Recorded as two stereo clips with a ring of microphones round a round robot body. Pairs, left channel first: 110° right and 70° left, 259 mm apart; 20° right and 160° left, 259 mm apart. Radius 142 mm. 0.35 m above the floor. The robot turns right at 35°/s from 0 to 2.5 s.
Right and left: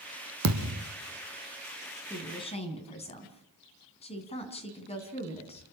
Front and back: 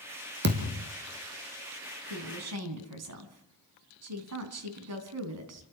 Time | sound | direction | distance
0.4 | a thud | 105° left | 2.5 m
2.1 | a woman speaking | 165° left | 4 m